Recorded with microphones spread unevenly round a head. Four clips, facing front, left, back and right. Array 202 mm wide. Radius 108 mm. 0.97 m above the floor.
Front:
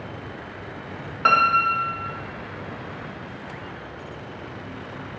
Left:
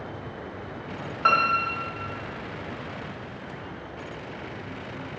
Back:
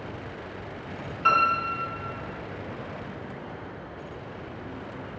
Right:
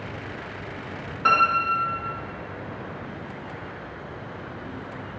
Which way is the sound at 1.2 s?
15° left.